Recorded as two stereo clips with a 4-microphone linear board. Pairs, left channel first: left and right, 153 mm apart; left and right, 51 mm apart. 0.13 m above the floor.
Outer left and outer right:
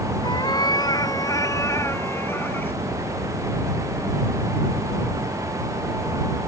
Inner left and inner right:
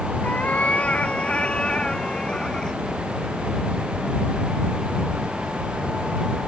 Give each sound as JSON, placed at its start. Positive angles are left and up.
{"t": 0.2, "sound": "a cat meowing", "side_deg": 30}